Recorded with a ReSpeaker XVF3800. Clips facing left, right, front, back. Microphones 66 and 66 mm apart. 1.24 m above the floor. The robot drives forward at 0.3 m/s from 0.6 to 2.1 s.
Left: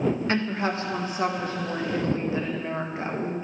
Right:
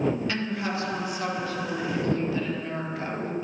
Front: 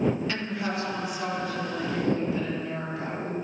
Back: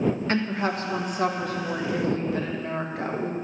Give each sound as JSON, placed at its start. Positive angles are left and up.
{"t": 0.3, "sound": "a woman speaking", "azimuth_deg": 140, "distance_m": 1.1}